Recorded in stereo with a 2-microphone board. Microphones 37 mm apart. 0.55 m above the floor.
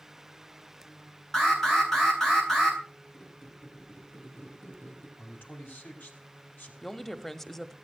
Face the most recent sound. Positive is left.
turn(degrees=10)  # may be behind; listen again after turning